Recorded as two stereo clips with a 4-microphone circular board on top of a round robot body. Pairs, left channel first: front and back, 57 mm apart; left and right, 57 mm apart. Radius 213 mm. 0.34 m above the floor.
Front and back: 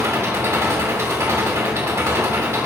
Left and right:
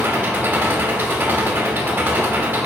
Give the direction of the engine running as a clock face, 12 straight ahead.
5 o'clock.